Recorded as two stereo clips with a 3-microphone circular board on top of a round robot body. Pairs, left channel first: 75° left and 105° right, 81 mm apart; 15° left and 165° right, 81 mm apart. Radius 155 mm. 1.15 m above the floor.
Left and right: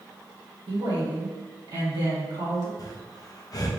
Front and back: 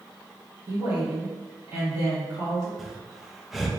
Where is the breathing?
110° left, 0.7 m.